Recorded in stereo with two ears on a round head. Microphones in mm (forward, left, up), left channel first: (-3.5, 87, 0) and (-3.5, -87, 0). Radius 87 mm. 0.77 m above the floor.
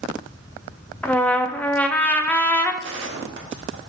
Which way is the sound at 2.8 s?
65° right (ahead or behind).